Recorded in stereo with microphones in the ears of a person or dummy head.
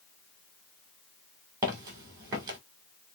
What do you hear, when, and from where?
1.6 s footsteps: 20° right (ahead or behind), 1.3 m